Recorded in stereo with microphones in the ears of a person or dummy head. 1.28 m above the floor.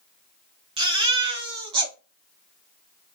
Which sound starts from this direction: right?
A baby crying, at 0.8 s.